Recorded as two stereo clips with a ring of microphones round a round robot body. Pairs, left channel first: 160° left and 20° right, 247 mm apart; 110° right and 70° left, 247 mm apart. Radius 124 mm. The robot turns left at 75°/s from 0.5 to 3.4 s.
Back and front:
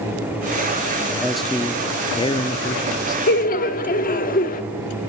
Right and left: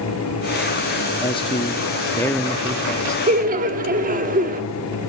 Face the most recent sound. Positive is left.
turn(degrees=115)